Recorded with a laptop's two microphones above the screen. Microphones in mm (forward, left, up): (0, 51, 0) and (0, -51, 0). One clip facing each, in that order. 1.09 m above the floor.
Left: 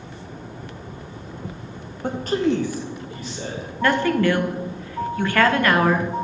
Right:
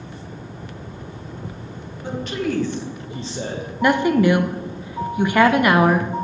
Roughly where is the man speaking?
Left.